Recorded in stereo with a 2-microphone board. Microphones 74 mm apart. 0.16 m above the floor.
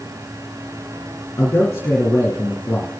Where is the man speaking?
35° left (ahead or behind), 2 m.